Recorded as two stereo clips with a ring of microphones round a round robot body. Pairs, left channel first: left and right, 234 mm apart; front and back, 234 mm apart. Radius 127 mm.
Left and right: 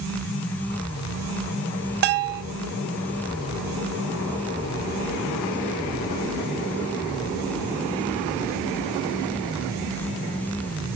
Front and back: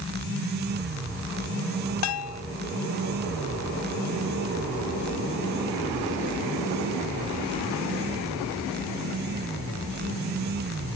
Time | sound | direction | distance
2.0 | a bell | 40° right | 0.6 m